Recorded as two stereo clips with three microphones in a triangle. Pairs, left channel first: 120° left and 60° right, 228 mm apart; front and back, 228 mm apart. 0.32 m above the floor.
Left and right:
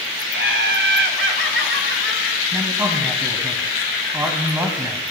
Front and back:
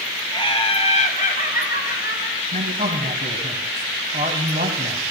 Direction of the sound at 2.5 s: 135° right.